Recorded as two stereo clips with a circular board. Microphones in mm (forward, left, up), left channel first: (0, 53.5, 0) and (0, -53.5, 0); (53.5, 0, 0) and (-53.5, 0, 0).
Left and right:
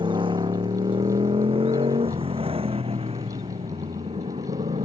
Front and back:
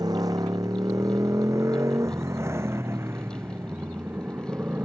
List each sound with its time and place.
0.0 s a motorcycle: 130° right; by 4.9 s 110° right